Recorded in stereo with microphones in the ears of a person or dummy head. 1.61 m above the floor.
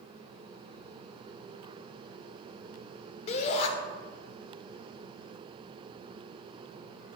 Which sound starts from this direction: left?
A shout, at 3.3 s.